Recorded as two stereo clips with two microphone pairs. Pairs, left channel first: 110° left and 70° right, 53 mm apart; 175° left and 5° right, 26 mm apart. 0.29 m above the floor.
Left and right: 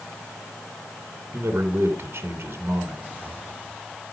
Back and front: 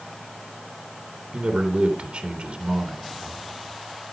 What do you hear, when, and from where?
1.3 s a man speaking: 30° right, 3.5 m